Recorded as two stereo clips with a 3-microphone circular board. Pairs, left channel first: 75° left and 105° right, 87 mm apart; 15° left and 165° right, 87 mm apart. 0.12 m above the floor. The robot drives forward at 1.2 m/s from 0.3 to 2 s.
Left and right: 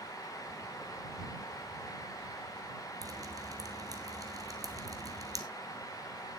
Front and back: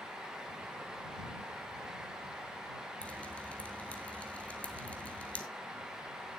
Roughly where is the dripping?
Ahead right.